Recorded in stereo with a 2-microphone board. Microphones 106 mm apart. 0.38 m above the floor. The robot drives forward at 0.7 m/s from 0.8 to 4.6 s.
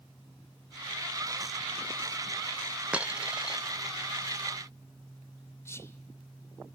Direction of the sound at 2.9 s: 10° right (ahead or behind).